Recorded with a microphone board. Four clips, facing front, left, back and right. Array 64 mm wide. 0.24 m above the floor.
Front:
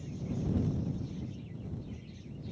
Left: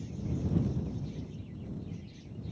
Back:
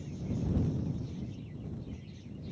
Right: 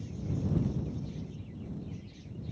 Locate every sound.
Only background noise.